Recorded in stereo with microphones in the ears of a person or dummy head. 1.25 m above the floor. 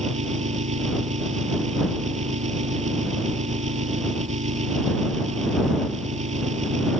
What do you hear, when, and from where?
0.0 s an engine running: 35° right (ahead or behind)